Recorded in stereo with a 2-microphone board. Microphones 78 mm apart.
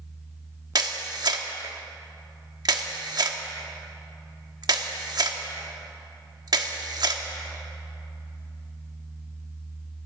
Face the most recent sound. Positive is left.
turn(degrees=-60)  # may be behind; listen again after turning